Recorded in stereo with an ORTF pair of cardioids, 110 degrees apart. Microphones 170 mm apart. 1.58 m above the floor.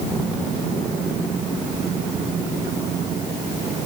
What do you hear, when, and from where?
Only background noise.